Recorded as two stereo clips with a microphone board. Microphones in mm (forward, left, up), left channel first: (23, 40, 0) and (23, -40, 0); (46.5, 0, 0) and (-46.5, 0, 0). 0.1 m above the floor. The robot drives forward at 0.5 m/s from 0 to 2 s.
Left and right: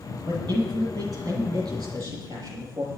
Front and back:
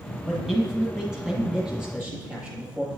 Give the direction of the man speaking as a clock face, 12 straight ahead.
3 o'clock.